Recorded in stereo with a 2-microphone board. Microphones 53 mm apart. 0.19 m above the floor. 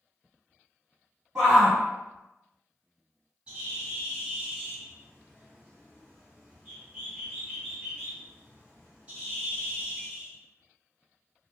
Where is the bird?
20° right (ahead or behind), 1.7 m.